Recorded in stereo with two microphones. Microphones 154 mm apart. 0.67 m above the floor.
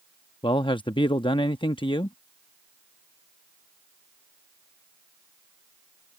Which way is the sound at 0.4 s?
35° left (ahead or behind).